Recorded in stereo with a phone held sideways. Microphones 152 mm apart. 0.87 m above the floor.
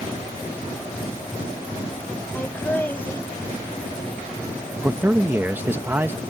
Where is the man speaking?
15° right (ahead or behind).